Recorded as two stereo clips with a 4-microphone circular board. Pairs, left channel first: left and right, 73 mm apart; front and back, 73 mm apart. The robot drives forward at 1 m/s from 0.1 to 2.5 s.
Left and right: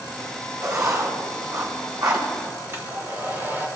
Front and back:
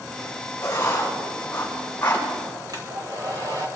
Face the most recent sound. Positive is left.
turn(degrees=-150)